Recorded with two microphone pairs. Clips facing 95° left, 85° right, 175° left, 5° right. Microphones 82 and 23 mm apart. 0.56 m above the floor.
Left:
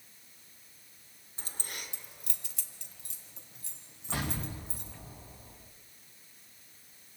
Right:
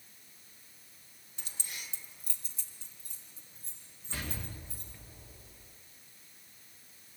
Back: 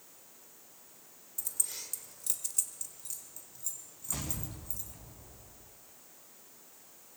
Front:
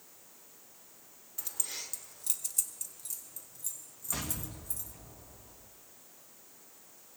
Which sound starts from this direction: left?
An explosion, at 4.1 s.